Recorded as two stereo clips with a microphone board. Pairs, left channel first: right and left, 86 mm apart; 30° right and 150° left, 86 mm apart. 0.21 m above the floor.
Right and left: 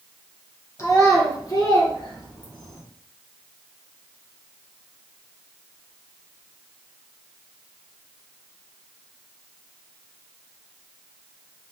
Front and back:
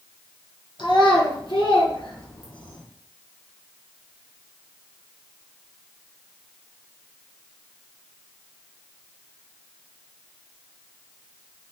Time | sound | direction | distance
0.8 | a child speaking | 35° right | 1.7 m